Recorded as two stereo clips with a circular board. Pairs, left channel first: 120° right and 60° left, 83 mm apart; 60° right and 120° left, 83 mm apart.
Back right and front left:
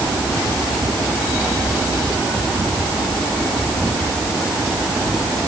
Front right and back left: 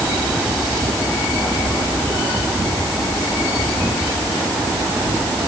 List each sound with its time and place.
Only background noise.